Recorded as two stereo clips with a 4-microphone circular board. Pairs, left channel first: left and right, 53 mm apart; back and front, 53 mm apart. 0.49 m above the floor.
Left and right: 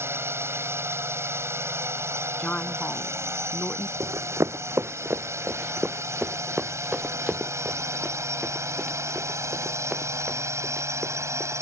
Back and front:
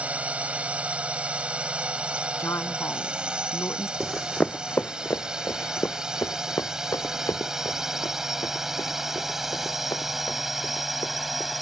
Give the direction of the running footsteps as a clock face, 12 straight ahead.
3 o'clock.